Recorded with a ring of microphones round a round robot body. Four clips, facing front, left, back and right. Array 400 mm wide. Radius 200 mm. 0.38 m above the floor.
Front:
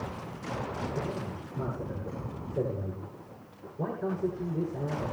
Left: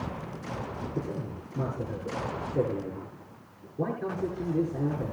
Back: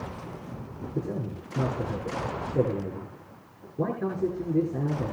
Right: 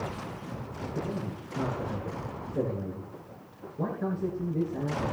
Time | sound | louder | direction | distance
0.9 | a man speaking | right 3 dB, back 2 dB | 175° left | 6 m